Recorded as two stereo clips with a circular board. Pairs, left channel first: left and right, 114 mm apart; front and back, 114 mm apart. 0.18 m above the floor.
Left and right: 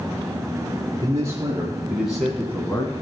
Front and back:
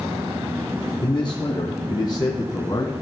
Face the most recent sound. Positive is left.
turn(degrees=45)